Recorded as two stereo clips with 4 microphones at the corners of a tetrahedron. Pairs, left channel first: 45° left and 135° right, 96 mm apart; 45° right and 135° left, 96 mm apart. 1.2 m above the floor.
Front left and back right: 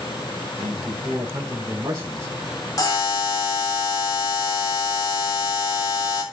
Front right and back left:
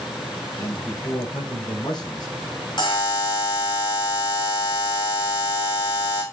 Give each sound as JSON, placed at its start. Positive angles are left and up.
{"t": 0.6, "sound": "a man speaking", "azimuth_deg": -80, "distance_m": 4.0}
{"t": 2.8, "sound": "a buzzer", "azimuth_deg": -5, "distance_m": 3.5}